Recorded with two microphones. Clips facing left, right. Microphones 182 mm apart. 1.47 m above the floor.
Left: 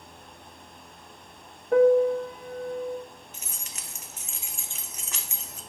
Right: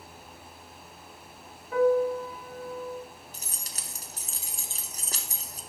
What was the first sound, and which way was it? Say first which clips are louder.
A piano: left 5 dB; 50° left (ahead or behind).